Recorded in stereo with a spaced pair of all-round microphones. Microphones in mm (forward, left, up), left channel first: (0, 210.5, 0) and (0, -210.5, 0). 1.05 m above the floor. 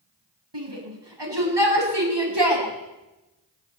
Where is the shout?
75° right (ahead or behind), 8 m.